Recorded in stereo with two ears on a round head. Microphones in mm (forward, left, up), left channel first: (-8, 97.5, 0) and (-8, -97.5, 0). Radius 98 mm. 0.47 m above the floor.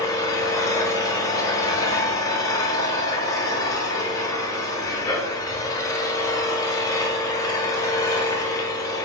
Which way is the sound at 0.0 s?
15° left (ahead or behind).